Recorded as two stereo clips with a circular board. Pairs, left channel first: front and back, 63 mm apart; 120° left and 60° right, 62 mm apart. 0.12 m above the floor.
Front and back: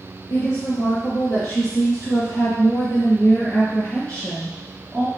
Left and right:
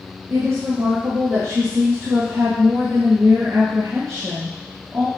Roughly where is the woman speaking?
Ahead right.